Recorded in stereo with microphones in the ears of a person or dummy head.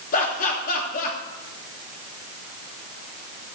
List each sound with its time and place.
0.1 s laughter: 45° left (ahead or behind), 3 m